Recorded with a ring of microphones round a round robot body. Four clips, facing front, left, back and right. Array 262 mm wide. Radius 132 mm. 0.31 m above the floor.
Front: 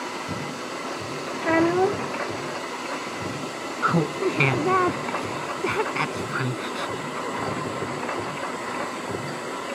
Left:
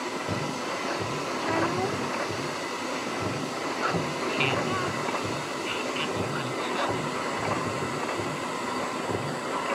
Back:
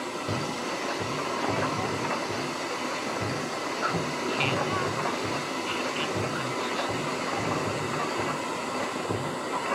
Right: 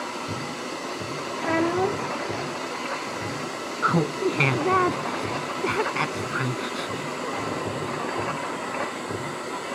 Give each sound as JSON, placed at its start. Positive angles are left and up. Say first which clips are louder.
{"t": 1.4, "sound": "a child speaking", "louder": "right 5 dB, front 12 dB", "azimuth_deg": -20}
{"t": 3.8, "sound": "laughter", "louder": "right 8 dB, front 9 dB", "azimuth_deg": -45}